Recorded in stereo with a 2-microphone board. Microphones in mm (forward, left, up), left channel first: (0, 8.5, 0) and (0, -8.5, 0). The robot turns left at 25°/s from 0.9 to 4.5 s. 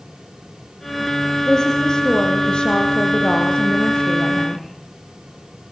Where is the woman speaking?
150° left, 5.5 m; by 4.7 s 70° left, 5.5 m.